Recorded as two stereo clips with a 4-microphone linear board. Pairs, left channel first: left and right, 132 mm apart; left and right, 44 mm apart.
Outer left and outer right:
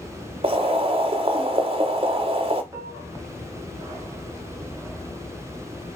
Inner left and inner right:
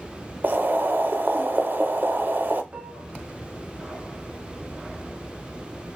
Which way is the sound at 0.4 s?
45° right (ahead or behind).